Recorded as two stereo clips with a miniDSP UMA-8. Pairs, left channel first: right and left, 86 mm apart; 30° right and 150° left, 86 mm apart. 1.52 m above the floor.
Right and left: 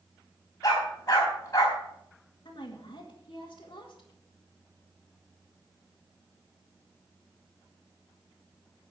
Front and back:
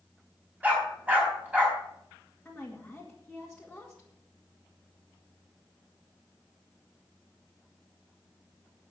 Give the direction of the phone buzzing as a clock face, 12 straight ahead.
I don't hear a phone buzzing.